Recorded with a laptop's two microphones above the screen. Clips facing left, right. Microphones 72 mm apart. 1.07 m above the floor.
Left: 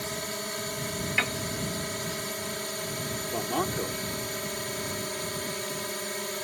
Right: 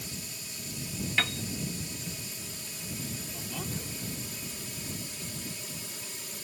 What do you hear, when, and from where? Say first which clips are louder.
0.0 s a drone: left 10 dB; 60° left (ahead or behind)
1.2 s a piano: left 1 dB; 10° left (ahead or behind)
3.3 s a man speaking: left 14 dB; 60° left (ahead or behind)